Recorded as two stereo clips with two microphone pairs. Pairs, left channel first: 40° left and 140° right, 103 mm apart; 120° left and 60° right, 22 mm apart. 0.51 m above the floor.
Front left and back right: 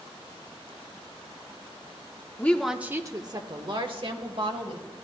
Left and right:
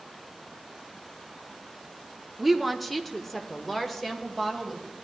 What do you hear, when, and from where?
2.4 s a woman speaking: 15° left, 0.7 m; by 4.9 s 160° right, 2.5 m